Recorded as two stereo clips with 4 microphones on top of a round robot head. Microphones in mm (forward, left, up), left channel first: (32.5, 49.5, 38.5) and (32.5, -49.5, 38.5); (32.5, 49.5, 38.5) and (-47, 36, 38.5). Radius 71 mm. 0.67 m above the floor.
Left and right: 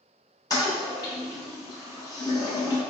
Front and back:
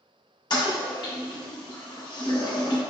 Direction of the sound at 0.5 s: 40° left.